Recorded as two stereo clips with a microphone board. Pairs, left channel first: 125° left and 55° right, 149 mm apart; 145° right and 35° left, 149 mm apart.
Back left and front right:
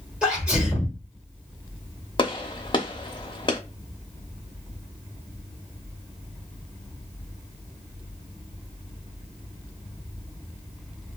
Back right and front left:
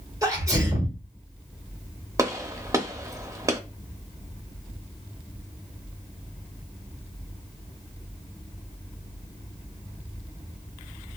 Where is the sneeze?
20° left, 1.2 m.